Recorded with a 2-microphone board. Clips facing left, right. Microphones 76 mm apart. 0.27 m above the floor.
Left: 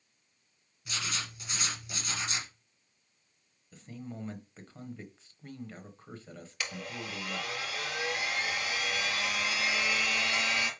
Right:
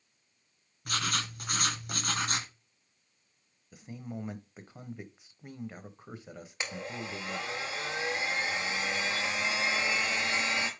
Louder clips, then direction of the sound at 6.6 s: Right 1 dB; 25° right (ahead or behind).